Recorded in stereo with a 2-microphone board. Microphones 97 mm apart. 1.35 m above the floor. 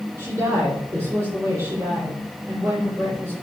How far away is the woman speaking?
About 4 m.